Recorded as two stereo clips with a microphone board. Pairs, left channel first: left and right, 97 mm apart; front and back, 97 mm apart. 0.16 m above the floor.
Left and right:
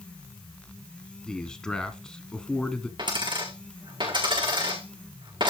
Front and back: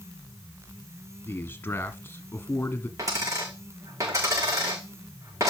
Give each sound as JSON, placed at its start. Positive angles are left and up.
{"t": 1.3, "sound": "a man speaking", "azimuth_deg": 20, "distance_m": 1.3}
{"t": 3.0, "sound": "a dropped coin", "azimuth_deg": -125, "distance_m": 4.5}